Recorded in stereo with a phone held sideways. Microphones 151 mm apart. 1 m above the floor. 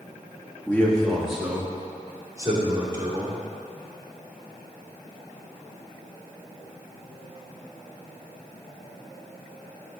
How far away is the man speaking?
About 1.2 m.